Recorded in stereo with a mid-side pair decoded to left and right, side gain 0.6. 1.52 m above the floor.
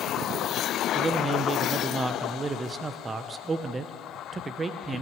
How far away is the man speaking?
About 0.8 m.